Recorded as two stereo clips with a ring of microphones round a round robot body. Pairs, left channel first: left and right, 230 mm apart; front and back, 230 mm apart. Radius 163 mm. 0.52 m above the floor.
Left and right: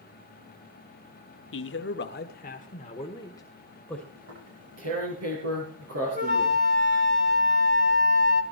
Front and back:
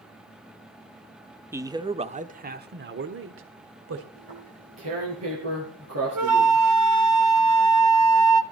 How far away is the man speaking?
About 1.3 m.